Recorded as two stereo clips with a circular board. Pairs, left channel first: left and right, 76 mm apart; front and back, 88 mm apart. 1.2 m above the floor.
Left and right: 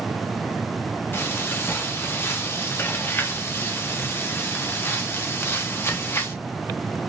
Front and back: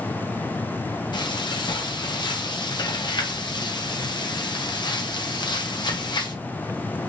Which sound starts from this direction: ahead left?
Frying, at 1.1 s.